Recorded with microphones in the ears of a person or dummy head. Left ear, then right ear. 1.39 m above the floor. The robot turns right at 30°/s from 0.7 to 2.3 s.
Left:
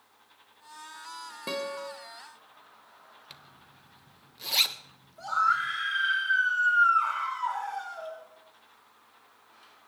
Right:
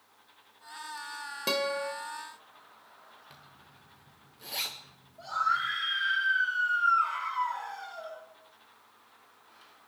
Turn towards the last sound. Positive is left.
turn(degrees=45)  # may be behind; listen again after turning